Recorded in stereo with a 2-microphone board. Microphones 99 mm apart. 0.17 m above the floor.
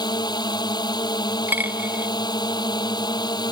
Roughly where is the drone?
Left.